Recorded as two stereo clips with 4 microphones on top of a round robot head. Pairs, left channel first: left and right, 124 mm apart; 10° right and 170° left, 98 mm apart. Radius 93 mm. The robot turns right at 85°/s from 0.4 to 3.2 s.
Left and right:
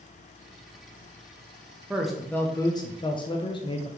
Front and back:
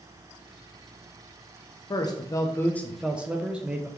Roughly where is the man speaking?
Ahead.